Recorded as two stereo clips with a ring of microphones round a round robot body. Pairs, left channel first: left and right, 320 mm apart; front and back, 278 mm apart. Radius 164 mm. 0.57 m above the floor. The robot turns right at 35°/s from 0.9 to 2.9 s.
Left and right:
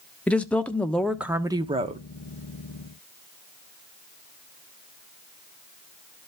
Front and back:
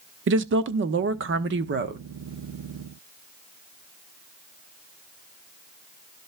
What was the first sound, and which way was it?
A woman speaking, 175° left.